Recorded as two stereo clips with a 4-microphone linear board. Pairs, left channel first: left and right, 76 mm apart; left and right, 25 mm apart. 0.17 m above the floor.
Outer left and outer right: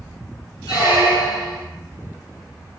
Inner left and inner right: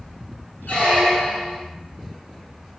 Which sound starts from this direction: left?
A squeak, at 0.7 s.